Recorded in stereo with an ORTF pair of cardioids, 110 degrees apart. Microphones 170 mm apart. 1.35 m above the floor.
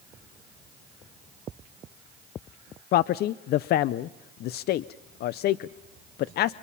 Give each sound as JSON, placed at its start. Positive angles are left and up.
{"t": 2.9, "sound": "a man speaking", "azimuth_deg": 65, "distance_m": 0.5}